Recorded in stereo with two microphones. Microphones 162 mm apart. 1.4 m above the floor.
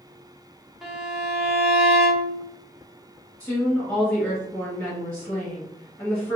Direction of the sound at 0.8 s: Centre (ahead or behind).